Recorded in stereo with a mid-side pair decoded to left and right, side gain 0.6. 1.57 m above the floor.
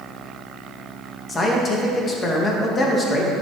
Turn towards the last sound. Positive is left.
turn(degrees=30)